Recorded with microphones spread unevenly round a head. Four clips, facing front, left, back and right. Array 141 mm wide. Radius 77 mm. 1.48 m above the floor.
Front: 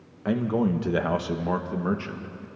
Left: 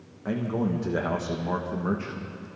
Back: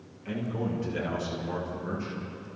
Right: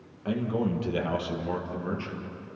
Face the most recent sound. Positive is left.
turn(degrees=35)